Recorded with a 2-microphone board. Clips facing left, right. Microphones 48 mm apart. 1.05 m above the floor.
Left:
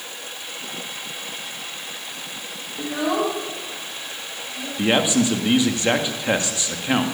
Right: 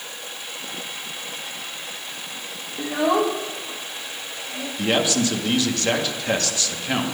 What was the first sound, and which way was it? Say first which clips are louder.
A child speaking: right 2 dB; 10° right (ahead or behind).